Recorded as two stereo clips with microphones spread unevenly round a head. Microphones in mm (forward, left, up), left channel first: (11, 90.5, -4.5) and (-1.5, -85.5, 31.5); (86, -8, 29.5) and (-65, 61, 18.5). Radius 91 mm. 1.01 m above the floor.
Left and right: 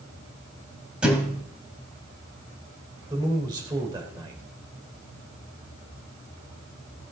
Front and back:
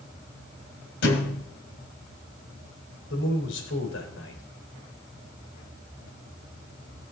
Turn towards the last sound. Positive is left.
turn(degrees=-25)